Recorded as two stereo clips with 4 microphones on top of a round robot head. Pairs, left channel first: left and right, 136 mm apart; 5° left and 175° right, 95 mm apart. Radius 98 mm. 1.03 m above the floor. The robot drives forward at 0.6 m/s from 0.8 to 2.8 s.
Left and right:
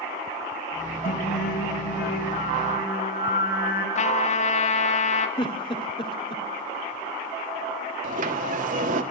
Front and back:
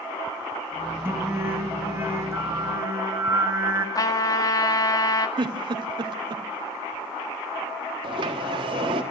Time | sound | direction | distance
1.1 | singing | 115° left | 5 m
4.0 | a trumpet | 55° left | 2.5 m
5.4 | a giggle | 150° left | 1.4 m
8.0 | a sliding door | 125° right | 1.7 m